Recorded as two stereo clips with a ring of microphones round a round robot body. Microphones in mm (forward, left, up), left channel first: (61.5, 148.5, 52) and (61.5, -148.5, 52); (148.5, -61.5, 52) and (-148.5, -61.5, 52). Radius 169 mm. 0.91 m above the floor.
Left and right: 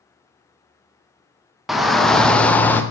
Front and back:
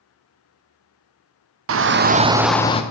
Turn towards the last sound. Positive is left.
turn(degrees=15)